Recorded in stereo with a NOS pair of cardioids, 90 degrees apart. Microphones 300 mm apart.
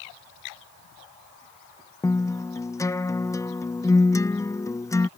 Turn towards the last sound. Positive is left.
turn(degrees=10)